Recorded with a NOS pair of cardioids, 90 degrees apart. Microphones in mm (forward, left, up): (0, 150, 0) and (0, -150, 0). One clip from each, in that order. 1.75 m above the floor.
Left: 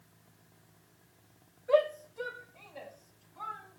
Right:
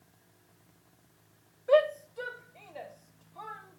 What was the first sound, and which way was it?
A shout, 35° right.